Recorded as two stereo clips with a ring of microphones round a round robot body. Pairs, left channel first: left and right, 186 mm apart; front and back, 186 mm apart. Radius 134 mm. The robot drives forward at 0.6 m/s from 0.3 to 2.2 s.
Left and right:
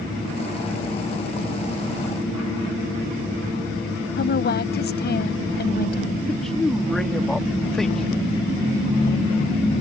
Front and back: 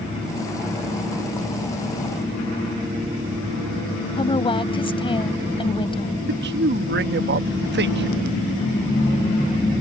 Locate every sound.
4.2 s a woman speaking: 60° left
6.3 s a man speaking: straight behind